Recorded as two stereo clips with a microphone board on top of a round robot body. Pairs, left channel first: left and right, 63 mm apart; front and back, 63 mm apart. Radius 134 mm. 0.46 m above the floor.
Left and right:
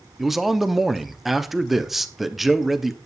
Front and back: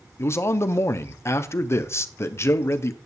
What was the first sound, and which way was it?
A man speaking, 5° right.